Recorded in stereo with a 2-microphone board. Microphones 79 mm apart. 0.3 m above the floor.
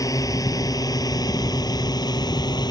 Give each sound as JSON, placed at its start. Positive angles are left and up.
{"t": 0.0, "sound": "a drone", "side_deg": 50}